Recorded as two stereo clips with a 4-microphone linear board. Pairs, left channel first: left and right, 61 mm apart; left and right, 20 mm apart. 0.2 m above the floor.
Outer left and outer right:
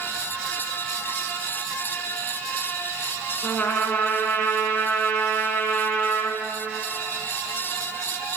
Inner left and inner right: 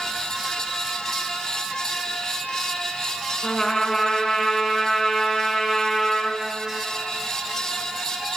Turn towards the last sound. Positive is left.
turn(degrees=35)  # may be behind; listen again after turning